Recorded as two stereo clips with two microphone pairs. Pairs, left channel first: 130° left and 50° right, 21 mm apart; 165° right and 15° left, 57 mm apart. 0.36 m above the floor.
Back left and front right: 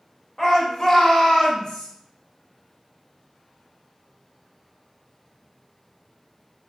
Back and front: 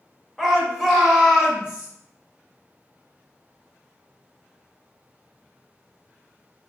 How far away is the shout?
About 0.9 m.